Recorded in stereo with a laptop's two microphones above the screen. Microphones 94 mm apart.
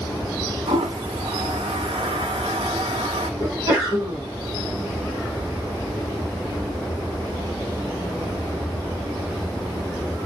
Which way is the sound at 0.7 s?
85° right.